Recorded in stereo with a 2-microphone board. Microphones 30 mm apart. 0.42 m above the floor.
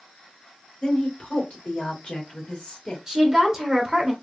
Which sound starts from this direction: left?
A woman speaking, at 0.8 s.